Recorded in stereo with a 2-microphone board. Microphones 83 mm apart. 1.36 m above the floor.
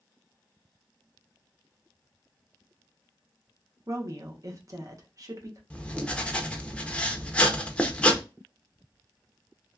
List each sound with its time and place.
3.9 s a woman speaking: 45° right (ahead or behind), 0.9 m
5.7 s writing: 15° left (ahead or behind), 0.6 m